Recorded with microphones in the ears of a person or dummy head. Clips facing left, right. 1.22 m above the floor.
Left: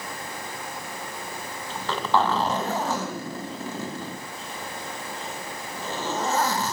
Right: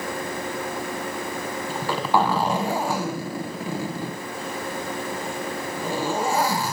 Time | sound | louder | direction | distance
1.7 | a zipper | right 1 dB | 15° right (ahead or behind) | 2.0 m